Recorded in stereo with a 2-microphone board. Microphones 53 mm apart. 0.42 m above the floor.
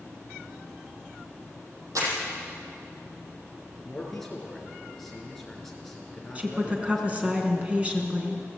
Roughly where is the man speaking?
Centre.